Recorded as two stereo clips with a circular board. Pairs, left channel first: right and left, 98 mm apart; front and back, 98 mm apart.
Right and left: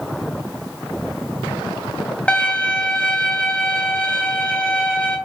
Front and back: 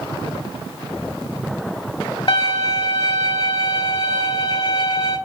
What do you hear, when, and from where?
2.3 s a violin: 15° right, 1.2 m